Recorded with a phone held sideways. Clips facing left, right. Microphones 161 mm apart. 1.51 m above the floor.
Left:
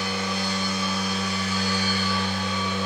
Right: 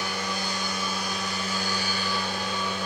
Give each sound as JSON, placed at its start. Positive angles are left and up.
{"t": 0.0, "sound": "a machine running", "side_deg": -15, "distance_m": 3.0}